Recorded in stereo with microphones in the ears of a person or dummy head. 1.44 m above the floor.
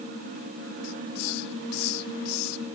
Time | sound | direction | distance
0.8 | a hiss | 85° left | ?